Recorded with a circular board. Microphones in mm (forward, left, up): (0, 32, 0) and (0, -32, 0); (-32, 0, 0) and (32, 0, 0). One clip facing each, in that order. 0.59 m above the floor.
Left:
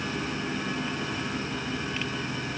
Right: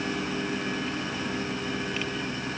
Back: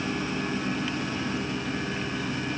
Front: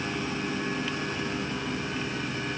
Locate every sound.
Only background noise.